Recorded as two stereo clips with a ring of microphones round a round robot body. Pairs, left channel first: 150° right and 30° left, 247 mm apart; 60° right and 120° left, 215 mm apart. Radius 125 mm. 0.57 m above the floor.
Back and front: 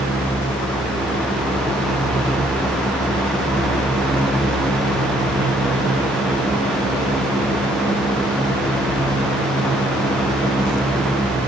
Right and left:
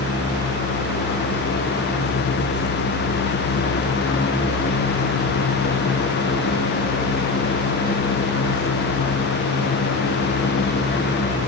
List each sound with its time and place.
Only background noise.